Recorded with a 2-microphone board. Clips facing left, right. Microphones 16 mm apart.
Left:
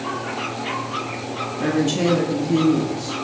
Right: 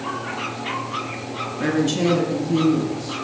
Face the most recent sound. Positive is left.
turn(degrees=45)  # may be behind; listen again after turning